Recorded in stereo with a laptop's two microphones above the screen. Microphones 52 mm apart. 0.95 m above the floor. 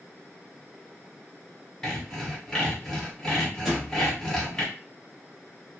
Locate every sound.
1.8 s sawing: 10° left (ahead or behind), 1.5 m
3.6 s a thud: 10° right (ahead or behind), 1.1 m